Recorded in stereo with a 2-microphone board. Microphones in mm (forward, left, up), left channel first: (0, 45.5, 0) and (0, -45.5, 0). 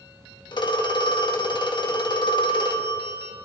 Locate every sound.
0.5 s a phone ringing: 55° left (ahead or behind), 1.2 m